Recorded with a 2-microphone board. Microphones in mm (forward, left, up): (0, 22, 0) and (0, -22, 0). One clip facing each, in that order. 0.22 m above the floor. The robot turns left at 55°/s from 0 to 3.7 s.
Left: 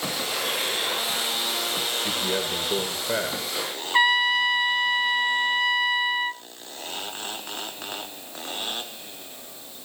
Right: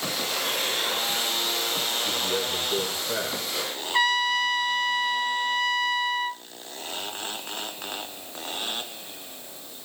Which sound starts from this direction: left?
A man speaking, at 2.0 s.